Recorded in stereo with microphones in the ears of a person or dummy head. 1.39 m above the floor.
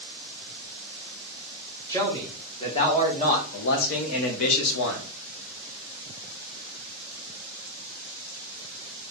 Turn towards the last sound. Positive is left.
turn(degrees=65)  # may be behind; listen again after turning